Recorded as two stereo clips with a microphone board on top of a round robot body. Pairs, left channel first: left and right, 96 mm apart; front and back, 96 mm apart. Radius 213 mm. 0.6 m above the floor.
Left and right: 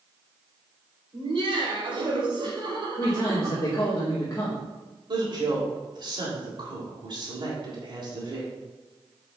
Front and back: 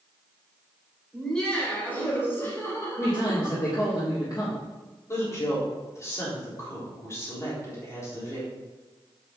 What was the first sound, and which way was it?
Laughter, 85° right.